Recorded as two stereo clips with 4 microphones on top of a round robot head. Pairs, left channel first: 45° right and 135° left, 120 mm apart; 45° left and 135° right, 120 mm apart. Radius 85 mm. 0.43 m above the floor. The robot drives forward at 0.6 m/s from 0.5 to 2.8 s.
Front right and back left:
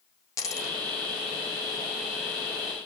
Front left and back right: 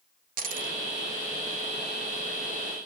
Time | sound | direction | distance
0.4 | a dropped coin | 115° right | 1.7 m